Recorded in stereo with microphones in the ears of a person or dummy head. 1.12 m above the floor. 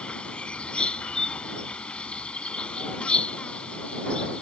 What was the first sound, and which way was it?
An insect, 5° left (ahead or behind).